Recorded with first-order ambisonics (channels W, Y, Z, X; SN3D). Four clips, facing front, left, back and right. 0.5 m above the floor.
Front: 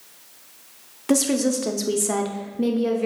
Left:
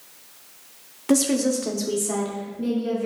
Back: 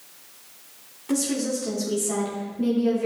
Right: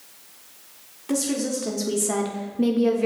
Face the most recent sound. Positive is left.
turn(degrees=-70)